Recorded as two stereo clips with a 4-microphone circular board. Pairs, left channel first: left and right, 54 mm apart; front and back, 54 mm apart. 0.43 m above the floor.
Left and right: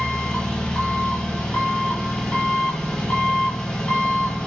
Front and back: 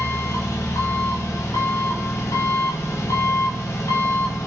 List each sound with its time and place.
0.0 s an engine running: 15° left, 0.8 m